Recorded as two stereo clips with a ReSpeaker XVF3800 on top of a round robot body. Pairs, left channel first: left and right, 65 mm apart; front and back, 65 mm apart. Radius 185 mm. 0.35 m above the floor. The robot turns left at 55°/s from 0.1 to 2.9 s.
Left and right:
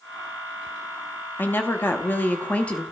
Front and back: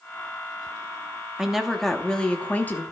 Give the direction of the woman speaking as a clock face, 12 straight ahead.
8 o'clock.